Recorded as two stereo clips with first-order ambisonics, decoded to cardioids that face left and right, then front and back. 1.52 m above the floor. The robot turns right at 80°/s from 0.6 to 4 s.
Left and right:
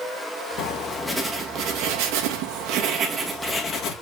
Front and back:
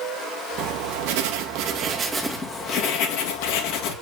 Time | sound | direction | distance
0.6 | writing | 140° left | 2.5 m